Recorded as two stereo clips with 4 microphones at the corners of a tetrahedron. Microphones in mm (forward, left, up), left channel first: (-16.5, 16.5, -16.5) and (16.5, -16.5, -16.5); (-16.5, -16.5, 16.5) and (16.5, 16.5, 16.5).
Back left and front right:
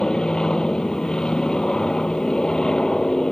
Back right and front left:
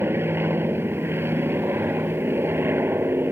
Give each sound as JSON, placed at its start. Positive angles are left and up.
{"t": 0.0, "sound": "an aircraft", "azimuth_deg": 65}